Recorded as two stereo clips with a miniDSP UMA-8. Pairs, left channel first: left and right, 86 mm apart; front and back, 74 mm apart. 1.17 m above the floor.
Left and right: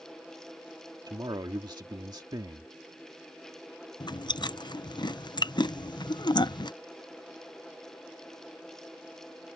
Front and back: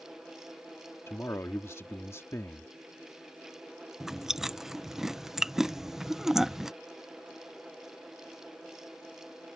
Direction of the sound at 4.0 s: 95° left.